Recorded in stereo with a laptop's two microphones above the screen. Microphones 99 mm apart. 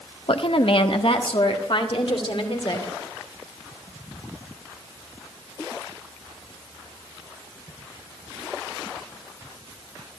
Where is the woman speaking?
60° left (ahead or behind), 0.9 m.